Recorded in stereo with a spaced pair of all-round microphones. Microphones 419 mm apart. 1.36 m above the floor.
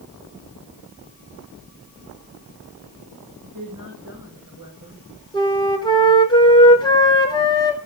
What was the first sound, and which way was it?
A woman speaking, 50° right (ahead or behind).